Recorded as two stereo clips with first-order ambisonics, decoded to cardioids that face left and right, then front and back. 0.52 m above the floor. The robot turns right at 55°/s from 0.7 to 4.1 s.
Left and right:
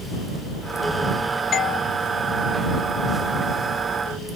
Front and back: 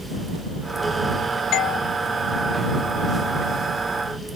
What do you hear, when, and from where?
1.5 s a doorbell: 35° left; by 1.8 s 50° left